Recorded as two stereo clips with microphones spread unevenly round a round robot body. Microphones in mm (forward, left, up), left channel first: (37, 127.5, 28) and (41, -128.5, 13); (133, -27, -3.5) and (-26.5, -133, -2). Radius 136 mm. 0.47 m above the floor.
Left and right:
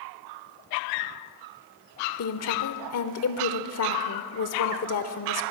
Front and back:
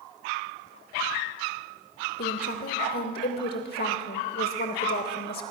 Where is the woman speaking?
75° left, 1.3 m.